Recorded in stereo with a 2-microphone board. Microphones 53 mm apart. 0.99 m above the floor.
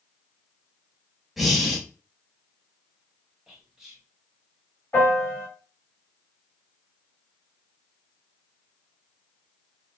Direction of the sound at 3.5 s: 5° right (ahead or behind).